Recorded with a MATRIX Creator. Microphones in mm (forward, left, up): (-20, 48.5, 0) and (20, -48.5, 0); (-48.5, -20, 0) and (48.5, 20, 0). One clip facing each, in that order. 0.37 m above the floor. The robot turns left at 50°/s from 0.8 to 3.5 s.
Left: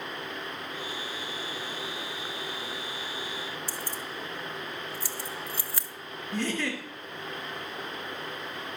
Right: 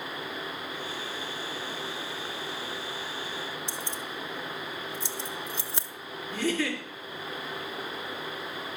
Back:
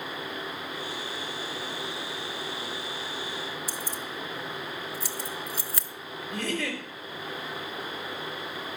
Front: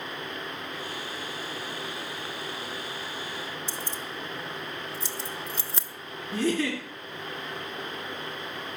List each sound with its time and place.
3.7 s keys jangling: 20° right, 0.7 m
6.3 s a giggle: 20° left, 3 m